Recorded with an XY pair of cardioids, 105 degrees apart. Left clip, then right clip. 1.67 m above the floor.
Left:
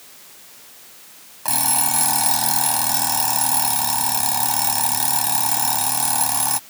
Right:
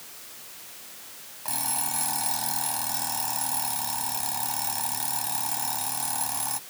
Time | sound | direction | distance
1.4 | an alarm clock | 60° left | ?